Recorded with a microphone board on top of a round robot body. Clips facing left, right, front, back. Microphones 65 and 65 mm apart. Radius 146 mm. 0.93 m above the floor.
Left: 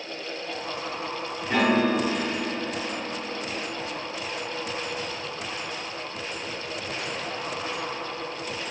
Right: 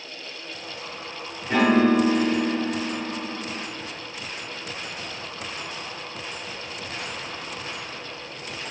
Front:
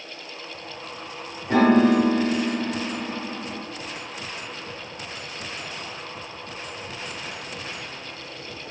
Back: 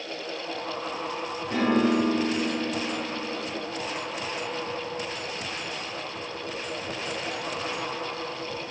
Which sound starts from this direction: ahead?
A piano, at 1.5 s.